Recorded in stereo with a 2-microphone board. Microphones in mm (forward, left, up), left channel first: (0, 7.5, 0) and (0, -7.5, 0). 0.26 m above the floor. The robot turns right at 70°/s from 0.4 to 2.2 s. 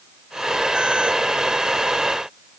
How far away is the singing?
I don't hear singing.